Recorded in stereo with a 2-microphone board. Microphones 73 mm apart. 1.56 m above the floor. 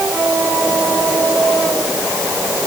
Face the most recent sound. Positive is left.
No sound to turn to.